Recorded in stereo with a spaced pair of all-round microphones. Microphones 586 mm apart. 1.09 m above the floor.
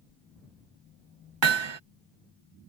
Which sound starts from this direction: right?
Hammering, at 1.4 s.